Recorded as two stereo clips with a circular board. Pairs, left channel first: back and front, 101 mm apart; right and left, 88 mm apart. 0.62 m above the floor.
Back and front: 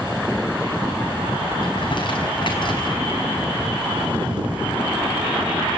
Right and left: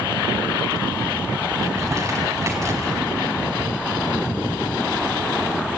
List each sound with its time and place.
1.6 s crumpling: 145° left, 4.5 m